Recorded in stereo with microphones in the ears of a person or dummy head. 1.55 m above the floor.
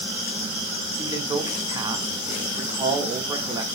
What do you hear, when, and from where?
1.0 s a man speaking: 20° right (ahead or behind), 0.6 m